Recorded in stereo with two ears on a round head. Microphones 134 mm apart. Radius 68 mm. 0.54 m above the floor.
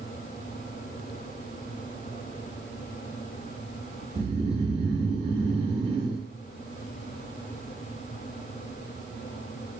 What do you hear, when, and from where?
4.2 s snoring: 40° right (ahead or behind), 2.5 m